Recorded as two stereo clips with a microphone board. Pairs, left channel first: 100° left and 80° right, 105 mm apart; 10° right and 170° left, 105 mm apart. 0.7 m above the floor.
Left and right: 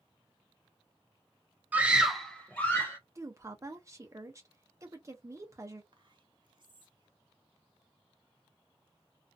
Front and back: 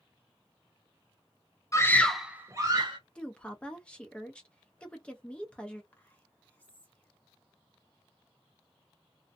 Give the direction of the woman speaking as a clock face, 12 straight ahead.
3 o'clock.